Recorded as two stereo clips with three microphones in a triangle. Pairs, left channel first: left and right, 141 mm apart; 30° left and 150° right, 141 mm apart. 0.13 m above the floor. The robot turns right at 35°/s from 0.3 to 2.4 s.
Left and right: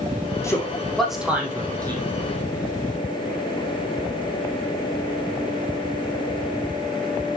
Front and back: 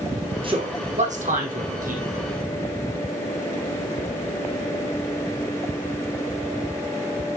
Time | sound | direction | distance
0.4 | a man speaking | 160° left | 4 m